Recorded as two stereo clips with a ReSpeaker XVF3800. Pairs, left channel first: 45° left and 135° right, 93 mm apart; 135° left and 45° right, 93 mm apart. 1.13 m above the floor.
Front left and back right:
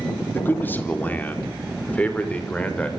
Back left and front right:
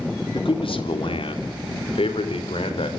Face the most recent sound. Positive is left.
turn(degrees=120)